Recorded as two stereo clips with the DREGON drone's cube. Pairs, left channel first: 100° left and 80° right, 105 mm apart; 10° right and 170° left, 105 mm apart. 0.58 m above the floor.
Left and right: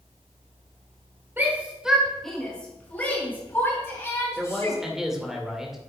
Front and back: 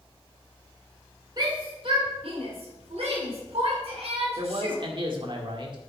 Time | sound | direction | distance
1.4 | a shout | 145° right | 1.6 m
4.4 | a man speaking | 165° right | 1.9 m